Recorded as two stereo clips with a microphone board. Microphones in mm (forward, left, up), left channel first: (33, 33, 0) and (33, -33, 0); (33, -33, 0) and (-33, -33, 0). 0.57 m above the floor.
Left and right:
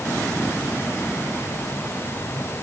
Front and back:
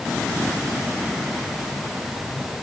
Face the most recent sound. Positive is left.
No sound to turn to.